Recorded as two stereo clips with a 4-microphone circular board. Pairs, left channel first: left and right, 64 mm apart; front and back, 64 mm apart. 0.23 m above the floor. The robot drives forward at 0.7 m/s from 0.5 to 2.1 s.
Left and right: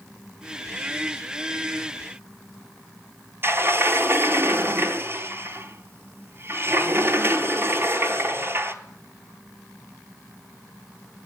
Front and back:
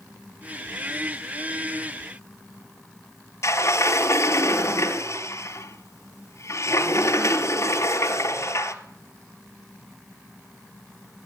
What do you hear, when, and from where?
3.4 s a sliding door: 40° right, 0.7 m